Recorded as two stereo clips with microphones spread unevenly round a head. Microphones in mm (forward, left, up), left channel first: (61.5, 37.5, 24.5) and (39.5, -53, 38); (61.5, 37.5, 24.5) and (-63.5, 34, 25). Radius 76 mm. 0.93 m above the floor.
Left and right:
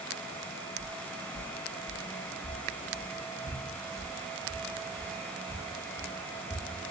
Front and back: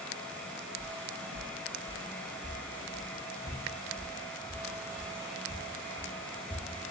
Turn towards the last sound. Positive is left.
turn(degrees=-80)